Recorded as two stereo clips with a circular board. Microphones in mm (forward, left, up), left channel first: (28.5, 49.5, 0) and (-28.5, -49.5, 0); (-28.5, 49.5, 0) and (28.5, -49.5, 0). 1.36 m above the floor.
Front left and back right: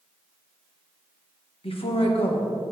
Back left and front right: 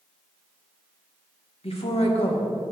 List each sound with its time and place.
1.6 s a woman speaking: 90° left, 1.4 m